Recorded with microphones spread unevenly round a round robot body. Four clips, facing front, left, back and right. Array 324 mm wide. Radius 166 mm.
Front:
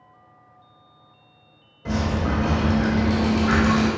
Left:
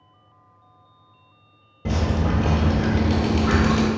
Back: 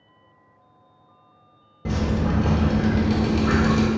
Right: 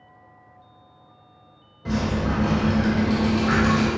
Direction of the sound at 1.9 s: 125° left.